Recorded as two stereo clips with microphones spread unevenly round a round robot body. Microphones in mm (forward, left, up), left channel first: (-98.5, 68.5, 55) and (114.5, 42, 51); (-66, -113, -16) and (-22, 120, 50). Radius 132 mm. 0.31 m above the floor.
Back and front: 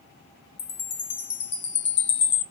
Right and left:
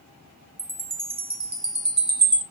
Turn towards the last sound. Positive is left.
turn(degrees=155)